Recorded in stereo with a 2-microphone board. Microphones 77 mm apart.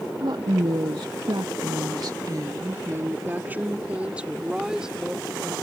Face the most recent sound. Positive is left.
turn(degrees=-5)  # may be behind; listen again after turning